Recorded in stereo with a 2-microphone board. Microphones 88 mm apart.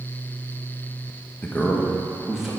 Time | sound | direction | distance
1.4 | a man speaking | 20° left (ahead or behind) | 1.2 m